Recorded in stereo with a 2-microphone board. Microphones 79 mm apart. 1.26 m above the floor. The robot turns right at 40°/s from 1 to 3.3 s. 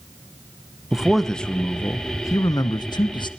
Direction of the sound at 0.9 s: 5° right.